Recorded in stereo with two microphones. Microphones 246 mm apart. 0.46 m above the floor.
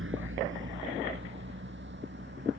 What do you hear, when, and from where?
0.0 s a vehicle: 60° right (ahead or behind); by 2.6 s 50° right (ahead or behind)